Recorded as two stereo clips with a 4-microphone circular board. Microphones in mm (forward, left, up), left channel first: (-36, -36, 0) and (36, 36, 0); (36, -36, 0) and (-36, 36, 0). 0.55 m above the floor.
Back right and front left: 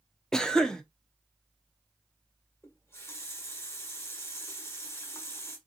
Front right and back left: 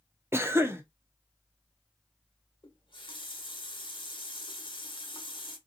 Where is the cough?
150° left, 0.6 m.